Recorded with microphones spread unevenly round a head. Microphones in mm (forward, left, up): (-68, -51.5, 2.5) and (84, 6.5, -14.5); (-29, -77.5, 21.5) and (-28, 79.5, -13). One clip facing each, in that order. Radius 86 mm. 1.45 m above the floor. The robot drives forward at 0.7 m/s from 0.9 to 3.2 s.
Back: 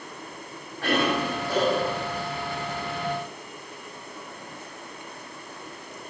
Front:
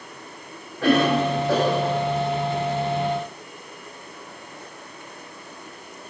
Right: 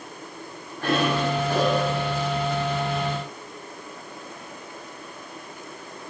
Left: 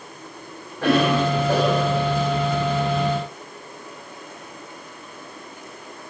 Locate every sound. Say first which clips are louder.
0.8 s a cough: front 6 dB, left 5 dB; 50° left, 8.5 m; by 2.1 s 55° left, 8 m